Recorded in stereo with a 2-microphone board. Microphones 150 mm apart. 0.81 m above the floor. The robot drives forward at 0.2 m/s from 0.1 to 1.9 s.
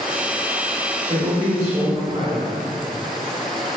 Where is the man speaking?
40° right (ahead or behind), 1.5 m.